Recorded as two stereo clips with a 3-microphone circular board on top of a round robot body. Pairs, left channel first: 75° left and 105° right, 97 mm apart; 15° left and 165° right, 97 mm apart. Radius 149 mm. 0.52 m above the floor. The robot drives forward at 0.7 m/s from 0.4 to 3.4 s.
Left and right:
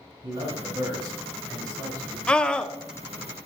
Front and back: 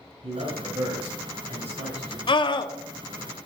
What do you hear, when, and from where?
0.2 s a man speaking: 155° right, 3 m; by 2.2 s 160° right, 4.5 m
2.3 s a scream: 5° right, 1.2 m